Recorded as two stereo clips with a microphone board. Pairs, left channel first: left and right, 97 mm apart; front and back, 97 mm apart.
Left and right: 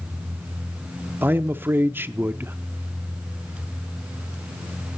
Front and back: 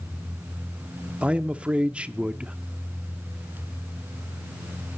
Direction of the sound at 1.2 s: 120° right.